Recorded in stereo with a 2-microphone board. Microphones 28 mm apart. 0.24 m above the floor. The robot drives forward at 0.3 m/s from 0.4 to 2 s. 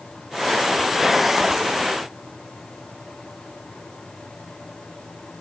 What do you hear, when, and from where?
Only background noise.